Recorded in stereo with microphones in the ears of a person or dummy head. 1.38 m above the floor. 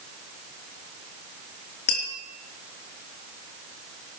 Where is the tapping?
55° left (ahead or behind), 3 m.